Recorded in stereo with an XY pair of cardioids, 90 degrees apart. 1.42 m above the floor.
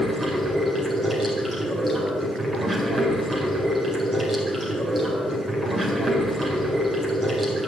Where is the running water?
20° right, 4.5 m.